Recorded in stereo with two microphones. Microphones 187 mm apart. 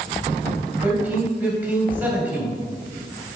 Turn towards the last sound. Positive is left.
turn(degrees=-10)  # may be behind; listen again after turning